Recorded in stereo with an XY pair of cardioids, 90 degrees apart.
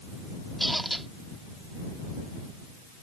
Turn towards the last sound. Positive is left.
turn(degrees=-10)